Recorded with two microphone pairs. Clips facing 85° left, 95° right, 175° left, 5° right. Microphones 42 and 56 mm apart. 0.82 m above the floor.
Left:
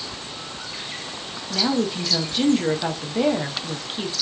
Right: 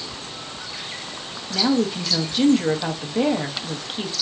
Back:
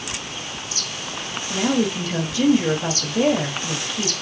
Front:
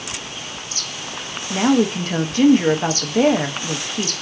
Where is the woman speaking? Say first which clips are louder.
Right 2 dB, front 4 dB; 5° right, 0.5 m.